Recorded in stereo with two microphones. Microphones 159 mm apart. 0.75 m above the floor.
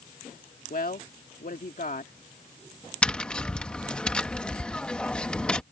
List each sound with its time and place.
0.7 s a woman speaking: 65° left (ahead or behind)
3.0 s tapping: 5° left (ahead or behind)